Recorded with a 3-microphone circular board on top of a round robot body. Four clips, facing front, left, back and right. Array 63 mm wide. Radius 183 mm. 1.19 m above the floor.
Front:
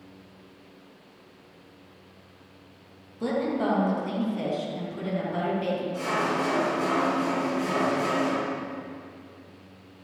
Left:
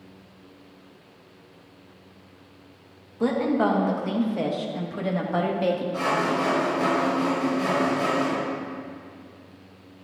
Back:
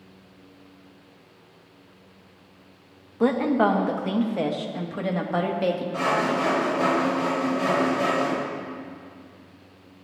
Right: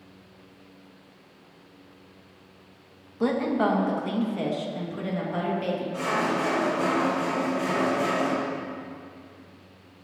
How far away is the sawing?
About 5.5 m.